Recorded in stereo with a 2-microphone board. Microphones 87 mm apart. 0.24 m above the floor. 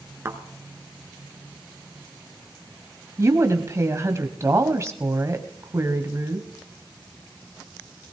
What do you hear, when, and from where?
0.2 s a thud: 30° right (ahead or behind), 1.6 m
3.2 s a woman speaking: 35° right (ahead or behind), 1.3 m